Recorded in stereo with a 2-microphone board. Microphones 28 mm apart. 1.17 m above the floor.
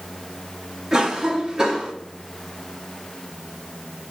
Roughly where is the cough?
Right.